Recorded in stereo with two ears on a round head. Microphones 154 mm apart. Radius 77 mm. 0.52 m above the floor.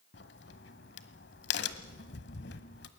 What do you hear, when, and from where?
0.1 s a crack: 70° left (ahead or behind), 1.4 m